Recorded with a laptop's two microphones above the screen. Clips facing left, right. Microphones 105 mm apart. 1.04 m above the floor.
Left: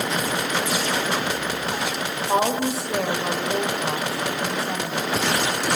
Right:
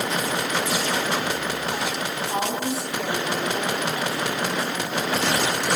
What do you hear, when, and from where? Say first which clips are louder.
2.3 s a woman speaking: left 6 dB; 75° left (ahead or behind), 3.5 m